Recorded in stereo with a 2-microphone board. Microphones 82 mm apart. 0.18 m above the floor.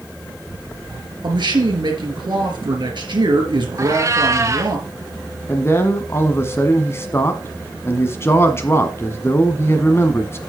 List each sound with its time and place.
1.2 s a man speaking: 65° right (ahead or behind), 3.5 m
3.8 s a cat meowing: 40° right (ahead or behind), 1.2 m
5.5 s a man speaking: 30° left (ahead or behind), 1.1 m